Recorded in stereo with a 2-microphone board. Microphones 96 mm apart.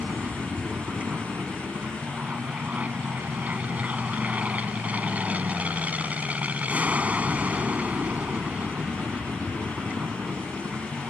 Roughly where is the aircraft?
Centre.